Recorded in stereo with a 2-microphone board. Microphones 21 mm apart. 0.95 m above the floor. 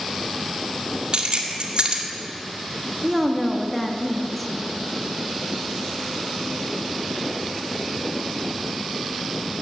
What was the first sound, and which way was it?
Keys jangling, 60° right (ahead or behind).